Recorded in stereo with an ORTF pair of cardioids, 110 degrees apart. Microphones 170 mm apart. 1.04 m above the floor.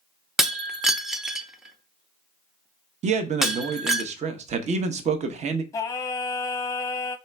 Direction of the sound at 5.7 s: 20° left.